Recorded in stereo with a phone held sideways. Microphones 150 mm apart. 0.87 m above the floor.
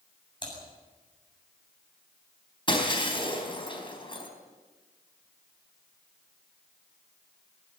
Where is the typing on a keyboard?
30° left (ahead or behind), 7.5 m.